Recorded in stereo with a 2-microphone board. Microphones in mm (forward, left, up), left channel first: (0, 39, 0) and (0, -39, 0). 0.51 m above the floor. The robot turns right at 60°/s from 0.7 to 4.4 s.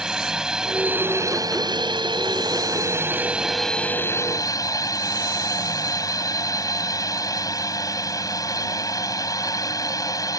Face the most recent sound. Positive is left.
turn(degrees=50)